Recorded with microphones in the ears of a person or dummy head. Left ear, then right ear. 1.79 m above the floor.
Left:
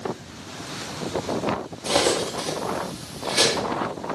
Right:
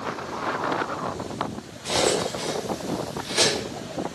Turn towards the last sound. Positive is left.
turn(degrees=0)  # may be behind; listen again after turning